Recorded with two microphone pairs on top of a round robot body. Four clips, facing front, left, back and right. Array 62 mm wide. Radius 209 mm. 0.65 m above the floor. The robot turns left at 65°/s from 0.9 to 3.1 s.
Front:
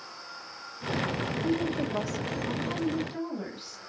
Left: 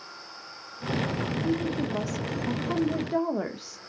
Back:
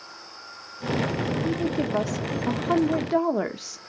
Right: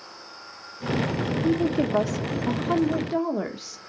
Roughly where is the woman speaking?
Right.